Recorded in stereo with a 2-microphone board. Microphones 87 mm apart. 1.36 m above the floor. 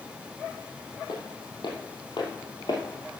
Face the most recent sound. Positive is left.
turn(degrees=50)  # may be behind; listen again after turning